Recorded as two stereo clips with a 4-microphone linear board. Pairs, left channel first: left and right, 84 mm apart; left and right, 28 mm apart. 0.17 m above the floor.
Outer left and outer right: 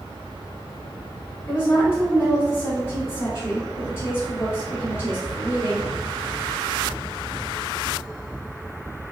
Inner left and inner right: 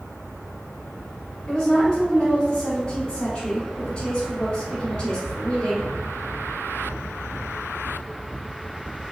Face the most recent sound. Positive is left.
turn(degrees=30)  # may be behind; listen again after turning